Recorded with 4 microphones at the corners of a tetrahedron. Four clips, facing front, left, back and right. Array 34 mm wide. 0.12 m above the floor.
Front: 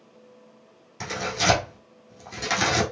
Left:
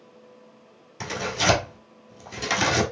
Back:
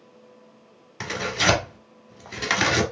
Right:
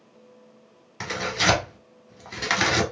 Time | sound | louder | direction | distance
1.0 | tearing paper | right 1 dB, back 2 dB | 135° right | 1.4 m